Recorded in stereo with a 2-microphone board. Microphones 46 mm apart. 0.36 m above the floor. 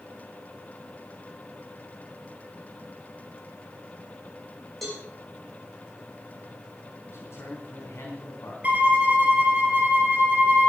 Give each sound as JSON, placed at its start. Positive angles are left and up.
{"t": 4.8, "sound": "a cowbell", "side_deg": 0, "distance_m": 7.0}
{"t": 7.1, "sound": "a man speaking", "side_deg": 70, "distance_m": 4.0}
{"t": 8.6, "sound": "a violin", "side_deg": -35, "distance_m": 4.0}